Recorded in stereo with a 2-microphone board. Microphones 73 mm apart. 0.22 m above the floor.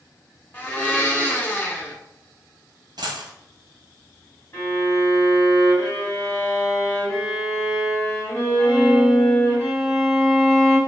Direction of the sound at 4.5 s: 40° left (ahead or behind).